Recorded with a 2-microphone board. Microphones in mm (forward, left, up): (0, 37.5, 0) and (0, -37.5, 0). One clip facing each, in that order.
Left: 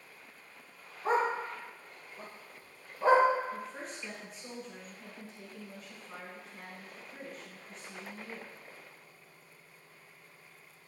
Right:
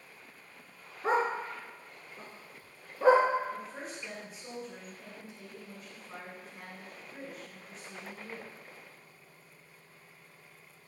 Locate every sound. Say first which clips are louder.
1.0 s a dog barking: even; 80° right, 1.7 m
3.5 s a woman speaking: even; 5° right (ahead or behind), 1.1 m